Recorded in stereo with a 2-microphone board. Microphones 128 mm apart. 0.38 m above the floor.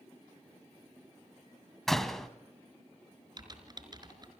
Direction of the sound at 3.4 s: 35° right (ahead or behind).